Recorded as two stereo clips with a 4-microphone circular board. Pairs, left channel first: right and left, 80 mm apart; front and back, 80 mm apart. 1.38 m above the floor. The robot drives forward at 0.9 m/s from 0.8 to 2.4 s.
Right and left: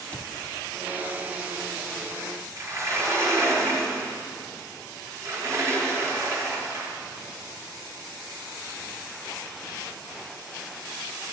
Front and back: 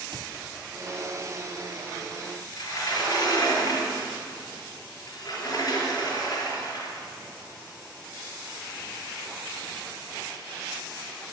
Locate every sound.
0.1 s a cupboard door: 160° right, 0.8 m
2.6 s a sliding door: 40° left, 4 m